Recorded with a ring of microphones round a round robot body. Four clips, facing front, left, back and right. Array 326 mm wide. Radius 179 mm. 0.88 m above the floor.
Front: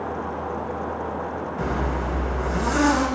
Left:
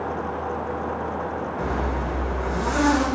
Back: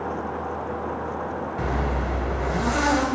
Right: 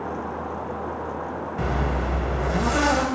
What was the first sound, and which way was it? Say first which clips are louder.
A zipper: right 2 dB, front 1 dB; 115° right.